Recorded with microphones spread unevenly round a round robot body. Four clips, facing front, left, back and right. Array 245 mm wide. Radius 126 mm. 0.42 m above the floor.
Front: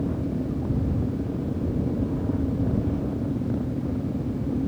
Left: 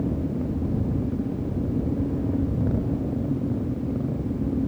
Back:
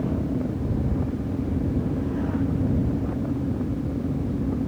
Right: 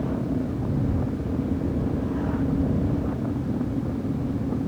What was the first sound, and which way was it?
Only background noise.